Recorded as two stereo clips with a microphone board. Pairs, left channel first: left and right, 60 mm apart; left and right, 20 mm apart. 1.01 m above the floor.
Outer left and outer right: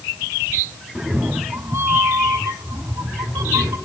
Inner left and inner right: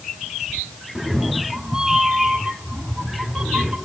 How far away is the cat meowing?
About 0.9 m.